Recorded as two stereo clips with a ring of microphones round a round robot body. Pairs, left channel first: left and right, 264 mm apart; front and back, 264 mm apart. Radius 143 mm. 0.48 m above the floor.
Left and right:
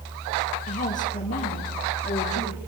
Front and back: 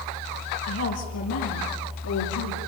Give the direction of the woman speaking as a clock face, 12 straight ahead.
11 o'clock.